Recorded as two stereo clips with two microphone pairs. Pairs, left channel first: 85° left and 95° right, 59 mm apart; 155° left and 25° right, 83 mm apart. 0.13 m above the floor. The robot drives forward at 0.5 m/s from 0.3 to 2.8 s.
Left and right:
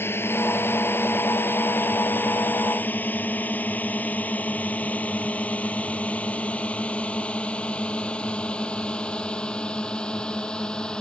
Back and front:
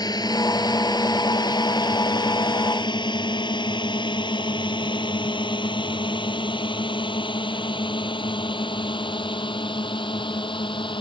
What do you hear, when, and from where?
0.0 s a drone: 130° left; by 11.0 s 165° left